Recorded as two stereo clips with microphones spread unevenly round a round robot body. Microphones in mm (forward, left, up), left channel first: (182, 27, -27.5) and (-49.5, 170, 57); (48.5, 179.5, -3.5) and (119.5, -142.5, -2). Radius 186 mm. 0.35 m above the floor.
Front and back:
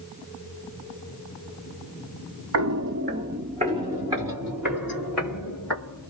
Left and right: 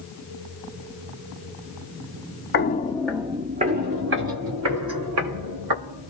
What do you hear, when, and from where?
2.5 s footsteps: 160° left, 0.7 m; by 6.1 s 120° right, 2.5 m